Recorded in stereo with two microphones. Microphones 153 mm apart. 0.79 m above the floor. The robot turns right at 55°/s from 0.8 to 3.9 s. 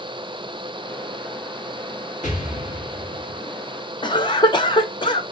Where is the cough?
30° left (ahead or behind), 0.7 m.